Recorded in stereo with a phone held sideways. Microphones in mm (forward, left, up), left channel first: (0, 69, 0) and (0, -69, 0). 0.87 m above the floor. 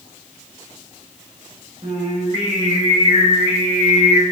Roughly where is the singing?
Right.